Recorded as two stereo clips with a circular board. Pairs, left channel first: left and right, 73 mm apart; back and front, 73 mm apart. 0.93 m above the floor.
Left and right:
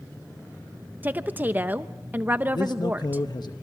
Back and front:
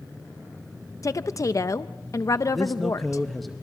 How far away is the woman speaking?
About 0.5 m.